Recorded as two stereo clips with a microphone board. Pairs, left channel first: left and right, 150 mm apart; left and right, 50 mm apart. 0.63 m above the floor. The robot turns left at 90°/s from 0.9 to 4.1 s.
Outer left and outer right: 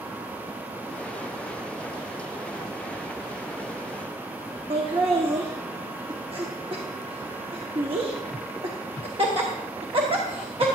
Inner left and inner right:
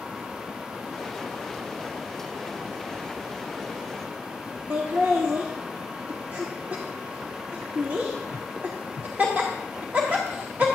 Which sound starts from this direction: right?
Laughter, at 4.7 s.